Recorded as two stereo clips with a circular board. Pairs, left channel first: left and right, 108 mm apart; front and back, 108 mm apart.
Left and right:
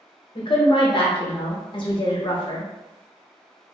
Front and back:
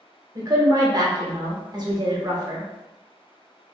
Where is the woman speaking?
130° left, 0.8 m.